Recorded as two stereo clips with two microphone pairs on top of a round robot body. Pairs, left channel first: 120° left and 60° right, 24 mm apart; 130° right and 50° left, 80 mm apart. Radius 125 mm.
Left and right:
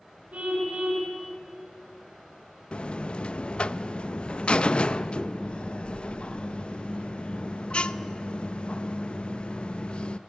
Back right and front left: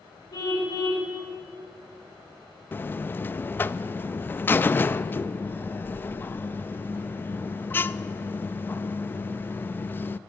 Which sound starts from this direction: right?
A car horn, at 0.3 s.